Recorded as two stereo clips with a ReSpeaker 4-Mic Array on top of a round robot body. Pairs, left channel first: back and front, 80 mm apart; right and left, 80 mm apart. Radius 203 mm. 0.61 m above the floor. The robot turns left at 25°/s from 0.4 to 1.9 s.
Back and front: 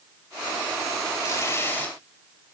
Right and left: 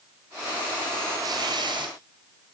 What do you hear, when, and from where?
1.2 s tearing paper: 130° left, 3.5 m; by 1.9 s 110° left, 3.5 m